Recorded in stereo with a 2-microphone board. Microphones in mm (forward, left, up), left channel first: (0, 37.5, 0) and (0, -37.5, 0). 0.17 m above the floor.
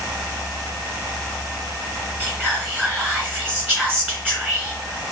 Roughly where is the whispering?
Right.